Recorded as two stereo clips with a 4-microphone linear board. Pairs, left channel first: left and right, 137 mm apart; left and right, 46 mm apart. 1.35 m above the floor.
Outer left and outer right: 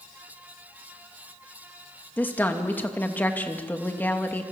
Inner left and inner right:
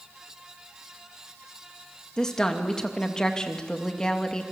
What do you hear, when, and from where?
2.2 s a woman speaking: 15° left (ahead or behind), 2.5 m